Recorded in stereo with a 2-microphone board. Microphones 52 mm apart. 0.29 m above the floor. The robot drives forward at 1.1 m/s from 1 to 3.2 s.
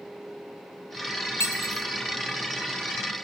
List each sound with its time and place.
1.4 s cutlery clinking: 65° left (ahead or behind), 1.7 m; by 1.9 s 75° left (ahead or behind), 1.6 m